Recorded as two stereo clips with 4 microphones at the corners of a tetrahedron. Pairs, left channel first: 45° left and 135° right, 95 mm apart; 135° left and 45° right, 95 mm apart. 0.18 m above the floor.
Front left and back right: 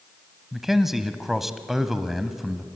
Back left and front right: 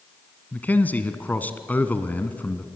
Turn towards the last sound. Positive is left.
turn(degrees=145)